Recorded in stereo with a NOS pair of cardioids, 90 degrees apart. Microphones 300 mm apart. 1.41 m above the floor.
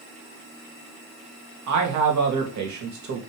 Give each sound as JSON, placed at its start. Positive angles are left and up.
{"t": 1.7, "sound": "a man speaking", "azimuth_deg": -70, "distance_m": 2.5}